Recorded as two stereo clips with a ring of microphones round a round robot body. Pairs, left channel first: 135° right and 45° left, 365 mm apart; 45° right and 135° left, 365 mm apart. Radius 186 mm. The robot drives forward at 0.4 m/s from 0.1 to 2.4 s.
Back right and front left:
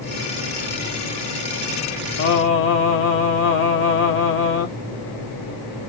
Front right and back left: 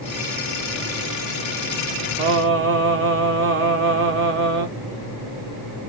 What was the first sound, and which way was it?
Singing, straight behind.